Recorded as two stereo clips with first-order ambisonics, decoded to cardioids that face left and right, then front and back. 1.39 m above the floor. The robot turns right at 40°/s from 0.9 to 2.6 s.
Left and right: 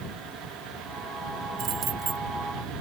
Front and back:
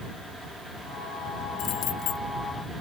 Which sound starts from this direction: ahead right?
Keys jangling, at 1.6 s.